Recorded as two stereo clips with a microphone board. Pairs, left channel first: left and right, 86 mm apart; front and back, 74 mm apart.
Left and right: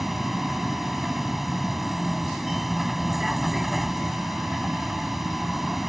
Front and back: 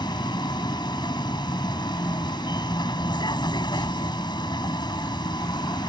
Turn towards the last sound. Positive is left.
turn(degrees=0)